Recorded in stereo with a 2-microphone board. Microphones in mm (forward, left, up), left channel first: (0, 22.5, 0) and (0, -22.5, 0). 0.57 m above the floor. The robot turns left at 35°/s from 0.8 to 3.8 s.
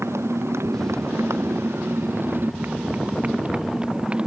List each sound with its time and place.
0.0 s a motorcycle: 90° right; by 4.3 s 25° right (ahead or behind)